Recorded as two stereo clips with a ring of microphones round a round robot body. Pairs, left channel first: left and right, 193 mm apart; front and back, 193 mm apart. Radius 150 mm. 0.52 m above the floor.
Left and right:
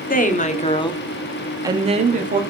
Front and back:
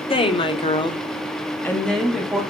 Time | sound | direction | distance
0.1 | a woman speaking | 55° left | 1.7 m